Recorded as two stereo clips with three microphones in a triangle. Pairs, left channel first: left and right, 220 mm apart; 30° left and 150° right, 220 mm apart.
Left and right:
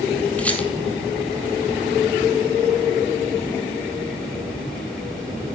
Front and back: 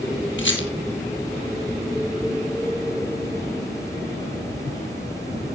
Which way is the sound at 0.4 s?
5° left.